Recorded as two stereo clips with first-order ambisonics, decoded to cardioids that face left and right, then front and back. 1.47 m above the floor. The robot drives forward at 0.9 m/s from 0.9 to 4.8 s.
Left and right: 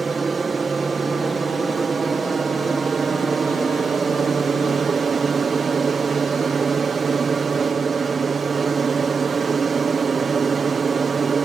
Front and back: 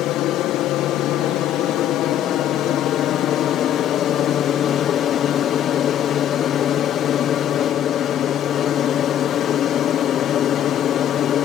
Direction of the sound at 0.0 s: 20° right.